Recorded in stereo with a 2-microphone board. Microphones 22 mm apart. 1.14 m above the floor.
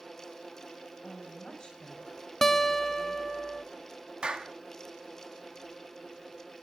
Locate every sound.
1.0 s a woman speaking: 40° left (ahead or behind), 7.5 m; by 3.3 s 60° left (ahead or behind), 5 m
2.4 s a guitar: 20° left (ahead or behind), 0.5 m
4.2 s a clap: 50° right (ahead or behind), 1.2 m